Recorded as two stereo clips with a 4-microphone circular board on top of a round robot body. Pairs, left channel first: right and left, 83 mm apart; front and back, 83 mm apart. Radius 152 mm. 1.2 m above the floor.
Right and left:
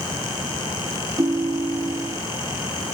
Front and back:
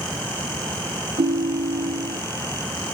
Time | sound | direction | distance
1.2 | a ringtone | 150° left | 0.5 m